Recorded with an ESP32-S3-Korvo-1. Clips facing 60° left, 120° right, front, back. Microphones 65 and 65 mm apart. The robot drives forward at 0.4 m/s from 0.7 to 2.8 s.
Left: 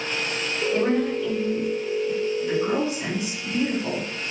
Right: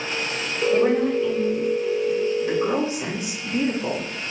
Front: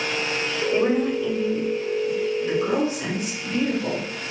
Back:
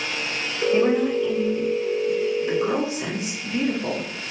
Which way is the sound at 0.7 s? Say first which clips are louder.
Right 4 dB, back 2 dB; 70° right.